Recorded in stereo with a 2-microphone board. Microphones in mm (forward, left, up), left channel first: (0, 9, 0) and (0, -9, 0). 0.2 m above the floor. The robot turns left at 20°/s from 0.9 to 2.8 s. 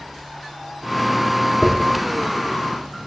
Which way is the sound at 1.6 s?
25° left (ahead or behind).